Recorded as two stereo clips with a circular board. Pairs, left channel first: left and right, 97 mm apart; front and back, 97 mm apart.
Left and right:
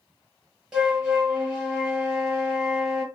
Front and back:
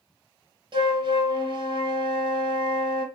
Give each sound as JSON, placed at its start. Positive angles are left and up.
{"t": 0.7, "sound": "a flute", "azimuth_deg": -170, "distance_m": 0.8}